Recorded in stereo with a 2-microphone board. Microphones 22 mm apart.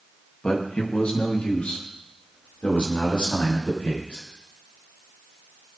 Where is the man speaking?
40° left (ahead or behind), 2 m; by 4.2 s 90° left, 6.5 m.